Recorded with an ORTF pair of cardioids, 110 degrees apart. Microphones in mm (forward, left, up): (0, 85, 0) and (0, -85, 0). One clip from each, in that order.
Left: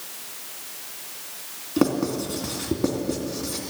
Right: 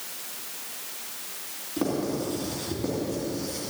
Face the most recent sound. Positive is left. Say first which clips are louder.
# left 5 dB
turn(degrees=50)